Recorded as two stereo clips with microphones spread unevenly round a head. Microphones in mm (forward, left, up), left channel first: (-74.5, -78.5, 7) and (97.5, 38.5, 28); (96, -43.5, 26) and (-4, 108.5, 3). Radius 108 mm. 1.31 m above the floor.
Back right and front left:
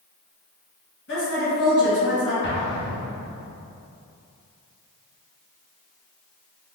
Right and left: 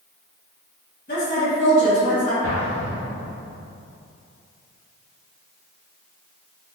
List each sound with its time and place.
1.1 s a woman speaking: 115° right, 1.8 m
2.4 s an explosion: 140° right, 0.6 m